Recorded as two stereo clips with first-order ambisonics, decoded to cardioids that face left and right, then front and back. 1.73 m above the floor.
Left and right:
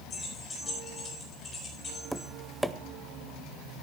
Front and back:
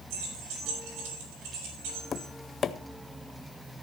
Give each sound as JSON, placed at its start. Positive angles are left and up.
{"t": 0.1, "sound": "keys jangling", "azimuth_deg": 160, "distance_m": 5.0}
{"t": 2.1, "sound": "tapping", "azimuth_deg": -5, "distance_m": 0.5}